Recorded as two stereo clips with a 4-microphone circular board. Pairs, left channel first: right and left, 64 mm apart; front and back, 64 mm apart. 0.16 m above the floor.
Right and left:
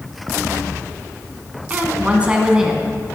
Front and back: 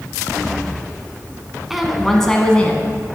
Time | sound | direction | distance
1.7 | a woman speaking | 100° left | 1.2 m